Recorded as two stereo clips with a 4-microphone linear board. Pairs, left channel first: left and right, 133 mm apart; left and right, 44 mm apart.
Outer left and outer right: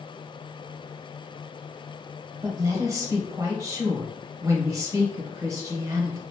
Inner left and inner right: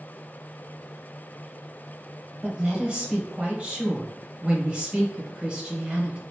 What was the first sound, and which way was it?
A woman speaking, 25° right (ahead or behind).